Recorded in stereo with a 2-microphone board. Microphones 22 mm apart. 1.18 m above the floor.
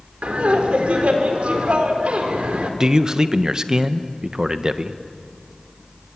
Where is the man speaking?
30° right (ahead or behind), 1.1 m.